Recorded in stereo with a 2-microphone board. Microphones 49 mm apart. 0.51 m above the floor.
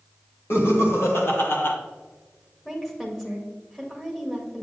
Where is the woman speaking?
5° left (ahead or behind), 1.9 m.